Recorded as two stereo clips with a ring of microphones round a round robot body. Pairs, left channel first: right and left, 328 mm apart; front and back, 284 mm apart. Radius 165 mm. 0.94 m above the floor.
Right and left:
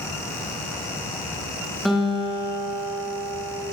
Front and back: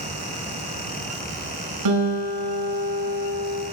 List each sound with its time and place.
1.9 s a guitar: straight behind, 6.5 m